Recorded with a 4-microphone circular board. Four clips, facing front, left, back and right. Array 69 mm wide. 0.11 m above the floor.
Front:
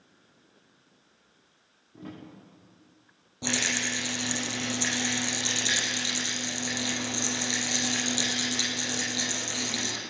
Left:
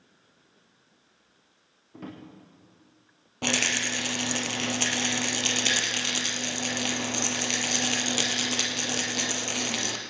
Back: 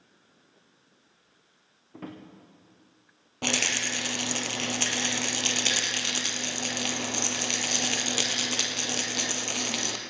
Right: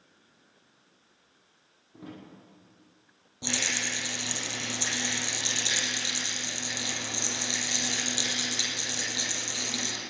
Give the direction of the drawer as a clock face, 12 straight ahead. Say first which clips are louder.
Left 3 dB, back 2 dB; 7 o'clock.